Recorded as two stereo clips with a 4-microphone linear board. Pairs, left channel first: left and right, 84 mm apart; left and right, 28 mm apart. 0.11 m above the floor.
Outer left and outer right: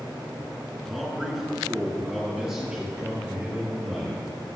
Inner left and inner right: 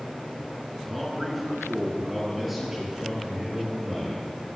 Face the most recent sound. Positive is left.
turn(degrees=-10)  # may be behind; listen again after turning